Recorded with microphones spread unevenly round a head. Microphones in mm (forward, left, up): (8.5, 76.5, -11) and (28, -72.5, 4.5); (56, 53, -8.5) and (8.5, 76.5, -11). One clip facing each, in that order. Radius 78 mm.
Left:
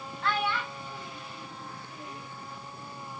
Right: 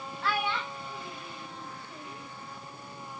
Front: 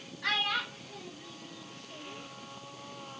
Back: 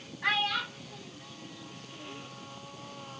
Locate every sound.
0.2 s a child speaking: 160° right, 0.7 m; by 2.3 s 25° right, 3 m